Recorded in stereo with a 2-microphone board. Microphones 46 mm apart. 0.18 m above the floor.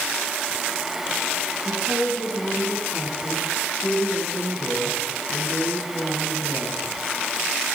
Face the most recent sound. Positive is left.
turn(degrees=55)  # may be behind; listen again after turning